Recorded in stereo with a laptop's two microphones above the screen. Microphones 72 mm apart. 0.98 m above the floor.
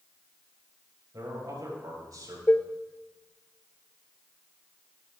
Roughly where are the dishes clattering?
Left.